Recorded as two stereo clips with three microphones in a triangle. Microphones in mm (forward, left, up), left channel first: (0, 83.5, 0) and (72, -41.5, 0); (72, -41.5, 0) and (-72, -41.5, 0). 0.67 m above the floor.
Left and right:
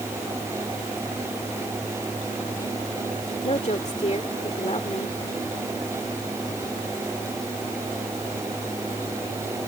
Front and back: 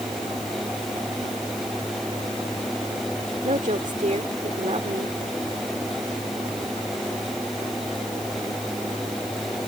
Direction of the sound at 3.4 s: 155° left.